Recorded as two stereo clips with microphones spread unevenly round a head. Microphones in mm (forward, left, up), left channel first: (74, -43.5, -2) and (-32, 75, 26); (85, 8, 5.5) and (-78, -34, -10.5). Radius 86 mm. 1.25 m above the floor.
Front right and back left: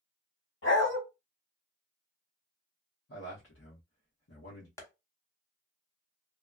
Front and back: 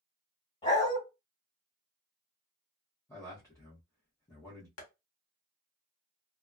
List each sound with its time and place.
0.6 s a dog barking: 40° right, 2 m
3.1 s a man speaking: 60° right, 1.1 m
4.8 s tapping: 25° left, 1.3 m